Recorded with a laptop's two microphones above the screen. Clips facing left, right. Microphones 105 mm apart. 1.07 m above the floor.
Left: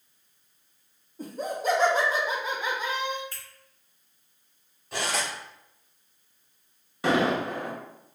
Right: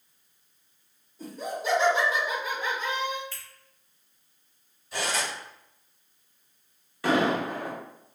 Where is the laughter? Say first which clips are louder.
Left 3 dB; 50° left (ahead or behind), 1.1 m; by 3.2 s 5° right (ahead or behind), 0.6 m.